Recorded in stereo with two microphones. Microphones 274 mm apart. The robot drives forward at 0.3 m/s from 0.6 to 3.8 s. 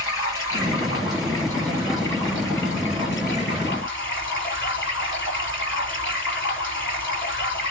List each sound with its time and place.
0.0 s running water: 50° left (ahead or behind), 4.5 m; by 7.7 s 45° left (ahead or behind), 5 m